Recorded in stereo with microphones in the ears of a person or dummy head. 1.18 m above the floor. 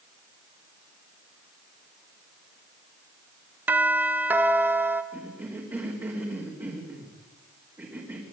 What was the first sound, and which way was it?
A doorbell, 10° right (ahead or behind).